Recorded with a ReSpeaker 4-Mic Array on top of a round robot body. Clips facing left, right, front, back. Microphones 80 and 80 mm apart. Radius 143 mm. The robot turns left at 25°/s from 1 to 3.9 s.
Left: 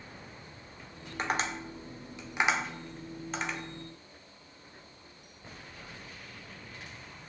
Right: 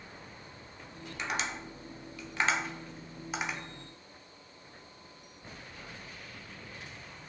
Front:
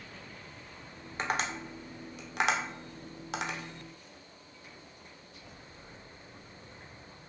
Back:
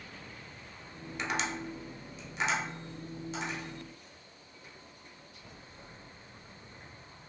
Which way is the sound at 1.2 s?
45° left.